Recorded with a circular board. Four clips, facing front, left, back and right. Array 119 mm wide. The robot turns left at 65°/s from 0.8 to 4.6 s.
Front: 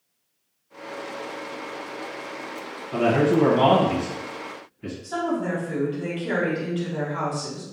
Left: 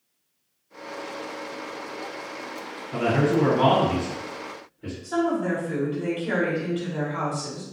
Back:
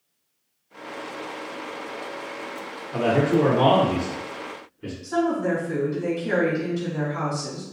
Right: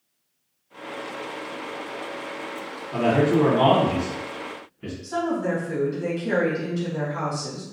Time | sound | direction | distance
2.9 | a man speaking | 15° left | 1.7 m
5.0 | a woman speaking | 45° left | 1.4 m